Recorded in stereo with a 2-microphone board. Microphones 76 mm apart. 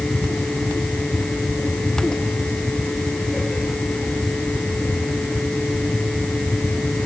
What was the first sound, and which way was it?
Only background noise.